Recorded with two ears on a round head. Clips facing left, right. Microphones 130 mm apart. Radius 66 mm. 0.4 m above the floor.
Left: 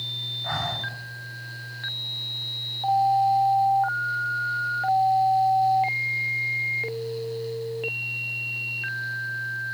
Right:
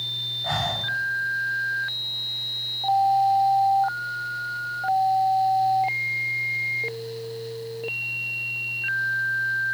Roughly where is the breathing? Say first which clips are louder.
Right 3 dB; right.